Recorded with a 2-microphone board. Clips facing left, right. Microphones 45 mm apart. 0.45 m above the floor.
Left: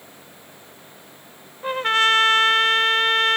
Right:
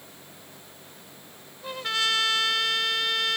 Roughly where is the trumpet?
Left.